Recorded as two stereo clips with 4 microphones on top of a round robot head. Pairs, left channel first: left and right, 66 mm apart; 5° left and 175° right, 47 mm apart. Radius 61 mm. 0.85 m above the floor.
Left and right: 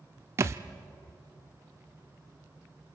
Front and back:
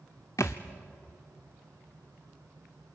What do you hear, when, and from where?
0.4 s a thud: 45° right, 0.5 m